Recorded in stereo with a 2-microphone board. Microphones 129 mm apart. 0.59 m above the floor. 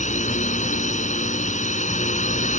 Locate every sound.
0.0 s a drone: 70° left (ahead or behind)